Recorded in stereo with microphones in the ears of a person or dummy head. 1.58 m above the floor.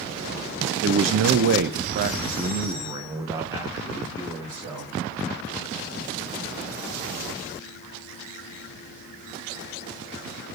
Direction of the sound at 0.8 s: 70° right (ahead or behind).